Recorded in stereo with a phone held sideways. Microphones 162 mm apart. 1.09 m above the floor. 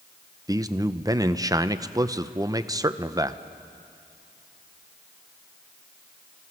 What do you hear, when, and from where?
0.5 s a man speaking: 20° right (ahead or behind), 0.6 m